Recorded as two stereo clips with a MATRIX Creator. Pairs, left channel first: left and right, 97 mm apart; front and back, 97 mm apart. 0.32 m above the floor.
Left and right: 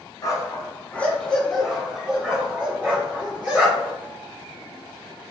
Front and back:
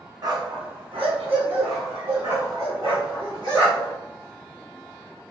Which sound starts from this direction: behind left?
A dog barking, at 0.2 s.